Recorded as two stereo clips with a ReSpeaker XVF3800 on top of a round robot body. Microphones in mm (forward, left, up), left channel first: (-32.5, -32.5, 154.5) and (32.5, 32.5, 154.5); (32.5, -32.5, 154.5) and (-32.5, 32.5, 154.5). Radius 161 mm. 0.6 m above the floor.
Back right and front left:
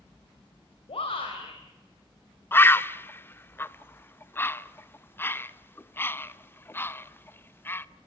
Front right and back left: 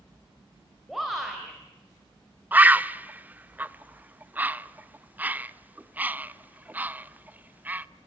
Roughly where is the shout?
Behind right.